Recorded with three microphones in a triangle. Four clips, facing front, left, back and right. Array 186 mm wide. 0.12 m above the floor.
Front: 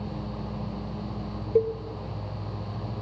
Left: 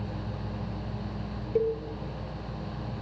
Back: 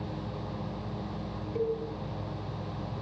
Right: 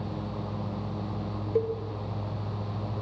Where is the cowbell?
5° right, 1.1 m.